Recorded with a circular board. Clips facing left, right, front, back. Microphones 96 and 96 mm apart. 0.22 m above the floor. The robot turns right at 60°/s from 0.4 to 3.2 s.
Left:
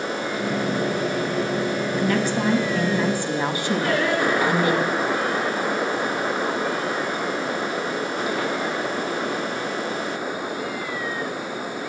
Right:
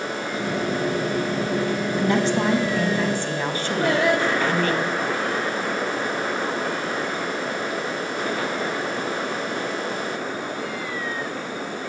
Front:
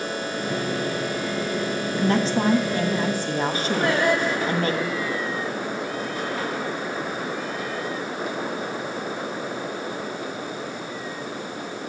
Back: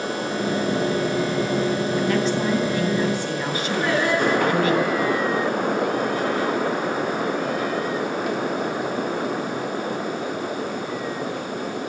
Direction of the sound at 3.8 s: 70° right.